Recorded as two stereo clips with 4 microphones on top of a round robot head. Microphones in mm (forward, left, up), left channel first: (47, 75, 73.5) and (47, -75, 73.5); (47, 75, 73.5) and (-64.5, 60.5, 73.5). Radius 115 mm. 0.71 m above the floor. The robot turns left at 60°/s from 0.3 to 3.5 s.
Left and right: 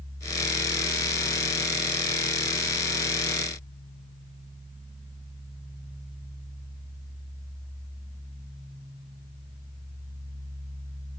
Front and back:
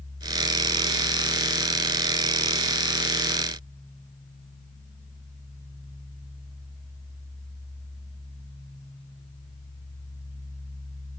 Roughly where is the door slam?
No door slam in this recording.